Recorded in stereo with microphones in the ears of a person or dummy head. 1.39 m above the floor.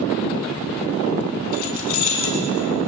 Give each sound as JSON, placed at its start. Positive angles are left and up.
{"t": 1.5, "sound": "keys jangling", "side_deg": 55, "distance_m": 4.0}